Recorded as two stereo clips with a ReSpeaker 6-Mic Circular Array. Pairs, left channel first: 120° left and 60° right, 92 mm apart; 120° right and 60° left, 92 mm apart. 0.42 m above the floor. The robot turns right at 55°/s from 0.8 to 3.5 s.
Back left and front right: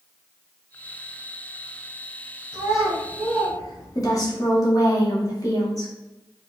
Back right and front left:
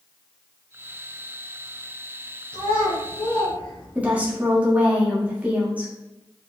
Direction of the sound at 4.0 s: 125° left.